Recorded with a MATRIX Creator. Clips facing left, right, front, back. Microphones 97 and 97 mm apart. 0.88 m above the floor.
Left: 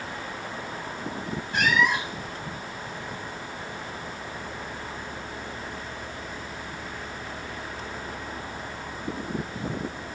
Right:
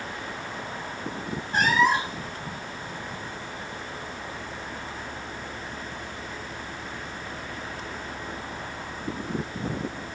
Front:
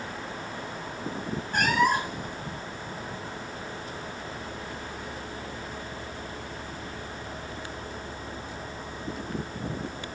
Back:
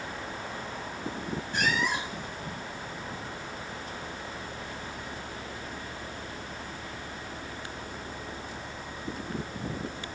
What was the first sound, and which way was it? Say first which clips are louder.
A cat meowing: right 2 dB, front 6 dB; 35° right.